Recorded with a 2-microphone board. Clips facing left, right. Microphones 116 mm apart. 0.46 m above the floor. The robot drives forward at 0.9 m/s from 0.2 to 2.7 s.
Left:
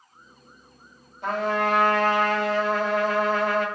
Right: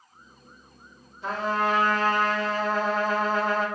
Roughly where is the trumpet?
Left.